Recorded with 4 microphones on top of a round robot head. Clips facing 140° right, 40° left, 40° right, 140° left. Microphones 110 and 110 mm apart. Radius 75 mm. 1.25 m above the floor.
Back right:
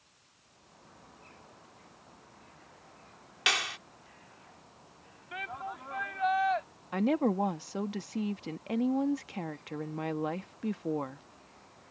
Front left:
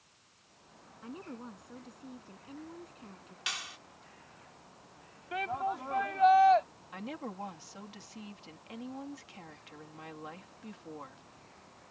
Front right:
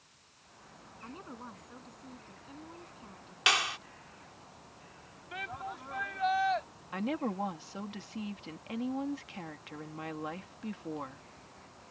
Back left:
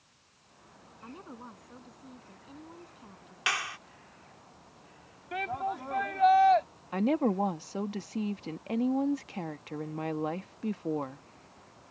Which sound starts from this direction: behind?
A woman speaking, at 6.9 s.